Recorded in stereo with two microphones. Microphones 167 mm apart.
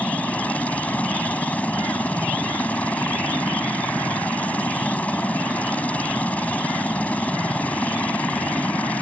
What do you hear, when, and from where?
0.0 s a helicopter: 10° left (ahead or behind)